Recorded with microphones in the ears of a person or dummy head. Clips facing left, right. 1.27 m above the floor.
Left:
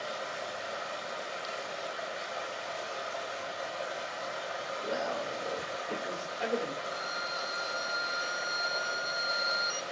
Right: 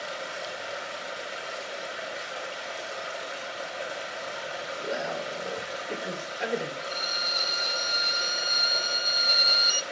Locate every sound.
0.0 s running water: 30° right (ahead or behind), 4.5 m
4.8 s a man speaking: 25° right (ahead or behind), 4.5 m
6.8 s a violin: 50° right (ahead or behind), 0.5 m